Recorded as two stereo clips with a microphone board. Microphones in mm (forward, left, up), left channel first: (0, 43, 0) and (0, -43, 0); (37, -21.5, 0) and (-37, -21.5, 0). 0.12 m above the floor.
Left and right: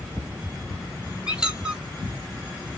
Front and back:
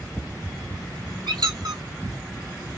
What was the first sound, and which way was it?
A squeak, 170° right.